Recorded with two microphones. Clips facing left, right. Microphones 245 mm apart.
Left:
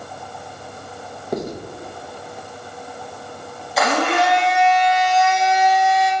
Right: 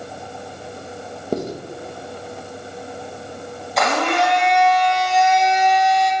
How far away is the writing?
About 0.6 m.